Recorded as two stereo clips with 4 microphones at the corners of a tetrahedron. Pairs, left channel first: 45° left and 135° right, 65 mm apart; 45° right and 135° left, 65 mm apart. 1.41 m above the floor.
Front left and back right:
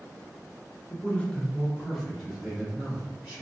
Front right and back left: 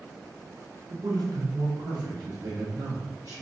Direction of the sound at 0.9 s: 105° left.